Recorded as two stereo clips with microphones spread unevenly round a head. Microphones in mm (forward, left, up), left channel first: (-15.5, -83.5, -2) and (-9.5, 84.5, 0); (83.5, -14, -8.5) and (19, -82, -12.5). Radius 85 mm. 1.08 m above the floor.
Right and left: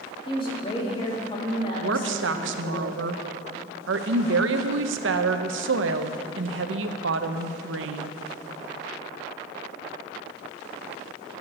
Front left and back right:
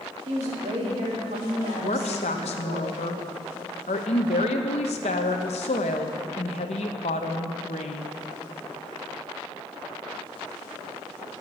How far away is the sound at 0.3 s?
About 2.5 m.